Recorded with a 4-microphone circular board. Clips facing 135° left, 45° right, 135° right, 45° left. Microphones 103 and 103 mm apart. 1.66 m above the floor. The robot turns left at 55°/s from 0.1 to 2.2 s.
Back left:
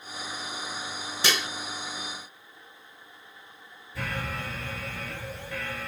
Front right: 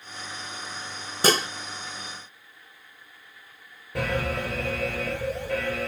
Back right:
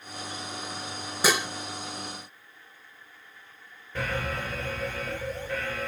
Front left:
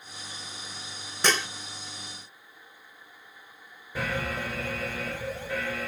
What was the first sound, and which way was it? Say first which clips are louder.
Dishes clattering: front right 7 dB, back right 1 dB; 55° right.